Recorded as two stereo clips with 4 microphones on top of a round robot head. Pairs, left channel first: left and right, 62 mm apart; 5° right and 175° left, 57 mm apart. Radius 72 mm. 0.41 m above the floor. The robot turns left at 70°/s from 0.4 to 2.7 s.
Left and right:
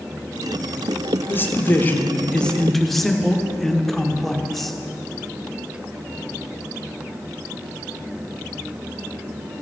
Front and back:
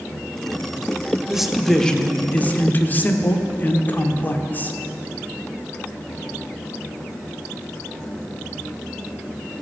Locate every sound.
1.3 s a man speaking: 105° left, 1.0 m; by 4.8 s 5° left, 1.0 m